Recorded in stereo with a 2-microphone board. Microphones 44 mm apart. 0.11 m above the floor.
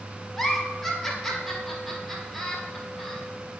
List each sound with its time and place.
0.4 s a giggle: 5° left (ahead or behind), 1.3 m